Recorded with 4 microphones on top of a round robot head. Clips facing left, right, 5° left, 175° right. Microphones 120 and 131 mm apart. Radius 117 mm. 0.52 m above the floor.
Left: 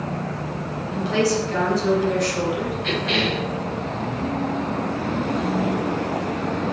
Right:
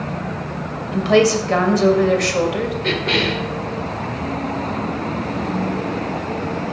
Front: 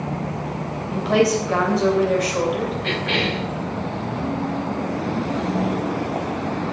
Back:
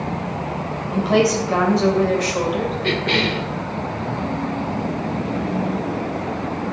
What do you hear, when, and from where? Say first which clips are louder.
0.9 s a woman speaking: right 7 dB, back 1 dB; 85° right, 2.5 m
2.8 s a cough: right 3 dB, back 3 dB; 125° right, 2.5 m